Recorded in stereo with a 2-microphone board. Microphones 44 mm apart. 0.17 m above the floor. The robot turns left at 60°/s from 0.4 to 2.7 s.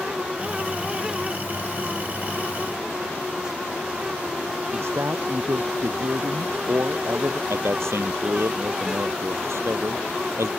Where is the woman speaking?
70° right (ahead or behind).